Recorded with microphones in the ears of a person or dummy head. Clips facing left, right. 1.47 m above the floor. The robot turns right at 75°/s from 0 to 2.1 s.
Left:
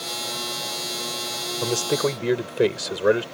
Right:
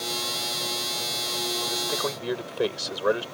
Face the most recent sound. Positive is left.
turn(degrees=150)